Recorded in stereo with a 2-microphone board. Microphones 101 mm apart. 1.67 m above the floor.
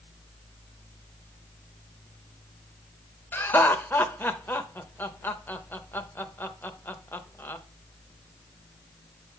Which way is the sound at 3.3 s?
20° left (ahead or behind).